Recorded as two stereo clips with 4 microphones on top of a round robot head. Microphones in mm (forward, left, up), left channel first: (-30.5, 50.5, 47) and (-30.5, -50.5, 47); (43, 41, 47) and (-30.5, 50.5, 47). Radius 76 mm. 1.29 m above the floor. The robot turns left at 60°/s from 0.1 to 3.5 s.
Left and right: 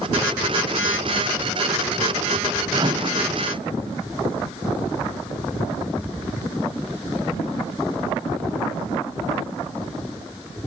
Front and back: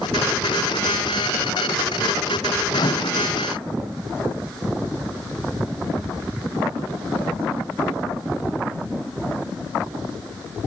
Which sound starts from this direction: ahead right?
A microwave, at 2.7 s.